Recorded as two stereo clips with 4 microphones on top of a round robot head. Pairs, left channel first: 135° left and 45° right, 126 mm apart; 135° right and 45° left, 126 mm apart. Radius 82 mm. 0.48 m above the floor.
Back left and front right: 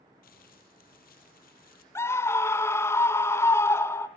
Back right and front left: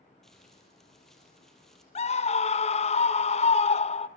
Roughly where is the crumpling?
Behind left.